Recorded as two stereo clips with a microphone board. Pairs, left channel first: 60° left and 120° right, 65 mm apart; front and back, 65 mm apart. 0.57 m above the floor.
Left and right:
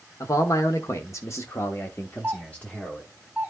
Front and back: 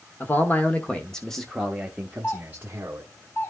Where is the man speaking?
50° left, 1.3 m; by 3.0 s 135° left, 1.3 m.